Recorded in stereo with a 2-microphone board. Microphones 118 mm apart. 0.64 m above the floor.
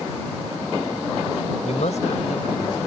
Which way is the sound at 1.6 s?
70° left (ahead or behind).